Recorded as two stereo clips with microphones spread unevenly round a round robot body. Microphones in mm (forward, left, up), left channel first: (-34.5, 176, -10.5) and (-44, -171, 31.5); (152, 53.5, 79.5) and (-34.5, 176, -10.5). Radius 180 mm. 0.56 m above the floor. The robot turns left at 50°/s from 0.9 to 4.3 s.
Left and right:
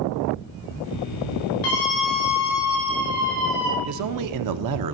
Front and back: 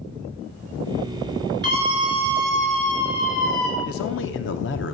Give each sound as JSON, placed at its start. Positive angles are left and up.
{"t": 1.6, "sound": "a scream", "azimuth_deg": 110, "distance_m": 9.0}
{"t": 3.8, "sound": "a man speaking", "azimuth_deg": -60, "distance_m": 1.1}